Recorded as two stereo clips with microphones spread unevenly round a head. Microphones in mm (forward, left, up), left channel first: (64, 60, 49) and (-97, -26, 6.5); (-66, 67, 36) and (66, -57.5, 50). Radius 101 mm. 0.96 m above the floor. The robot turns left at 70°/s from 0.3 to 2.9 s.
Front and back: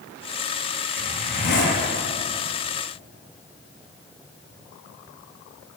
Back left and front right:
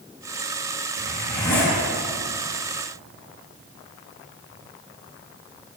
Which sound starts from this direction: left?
A zipper, at 1.0 s.